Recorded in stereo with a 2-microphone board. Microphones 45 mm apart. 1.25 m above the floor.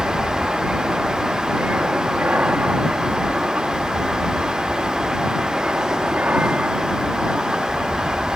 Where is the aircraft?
30° right (ahead or behind).